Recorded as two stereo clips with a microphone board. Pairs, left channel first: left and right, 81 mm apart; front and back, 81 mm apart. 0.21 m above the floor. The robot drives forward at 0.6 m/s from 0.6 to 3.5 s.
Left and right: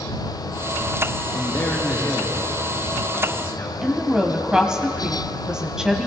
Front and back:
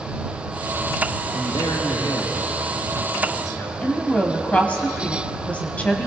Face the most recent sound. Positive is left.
turn(degrees=-25)